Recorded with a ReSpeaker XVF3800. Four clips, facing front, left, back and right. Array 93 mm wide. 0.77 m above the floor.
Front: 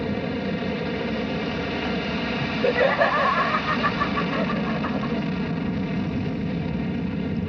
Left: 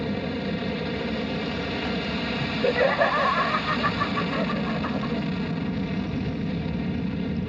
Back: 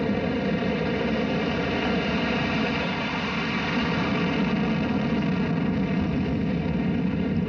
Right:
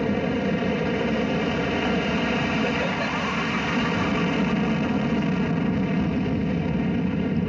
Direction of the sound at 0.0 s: 105° right.